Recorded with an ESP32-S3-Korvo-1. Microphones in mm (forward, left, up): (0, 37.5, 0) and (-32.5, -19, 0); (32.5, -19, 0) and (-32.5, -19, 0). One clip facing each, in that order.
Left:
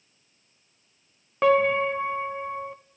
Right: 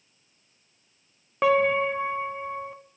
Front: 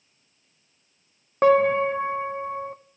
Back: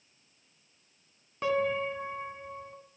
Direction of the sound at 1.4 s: 30° right.